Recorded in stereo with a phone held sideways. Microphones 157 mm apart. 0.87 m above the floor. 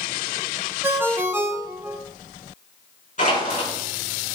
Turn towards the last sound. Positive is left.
turn(degrees=55)  # may be behind; listen again after turning